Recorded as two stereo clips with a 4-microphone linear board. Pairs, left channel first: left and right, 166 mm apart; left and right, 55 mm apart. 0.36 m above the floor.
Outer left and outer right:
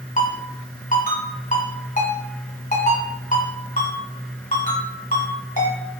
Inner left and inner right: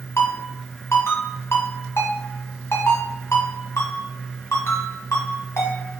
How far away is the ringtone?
About 1.5 m.